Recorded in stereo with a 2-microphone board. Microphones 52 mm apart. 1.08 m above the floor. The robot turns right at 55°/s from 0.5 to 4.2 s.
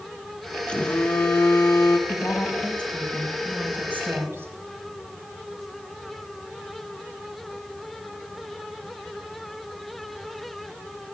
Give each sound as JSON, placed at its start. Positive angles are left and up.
{"t": 0.7, "sound": "a phone buzzing", "azimuth_deg": 25, "distance_m": 1.3}
{"t": 2.1, "sound": "a woman speaking", "azimuth_deg": 115, "distance_m": 5.5}